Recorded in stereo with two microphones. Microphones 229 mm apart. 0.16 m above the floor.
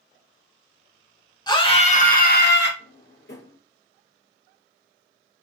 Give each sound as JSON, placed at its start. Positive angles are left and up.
{"t": 1.5, "sound": "a scream", "side_deg": 20, "distance_m": 2.5}
{"t": 2.8, "sound": "a drawer", "side_deg": 55, "distance_m": 2.5}